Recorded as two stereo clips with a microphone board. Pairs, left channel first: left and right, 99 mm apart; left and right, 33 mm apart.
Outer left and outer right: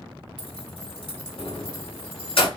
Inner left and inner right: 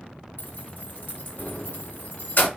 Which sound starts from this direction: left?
Keys jangling, at 0.4 s.